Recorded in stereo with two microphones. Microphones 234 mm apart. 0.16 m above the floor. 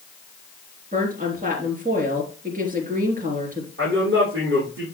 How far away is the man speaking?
About 6.5 m.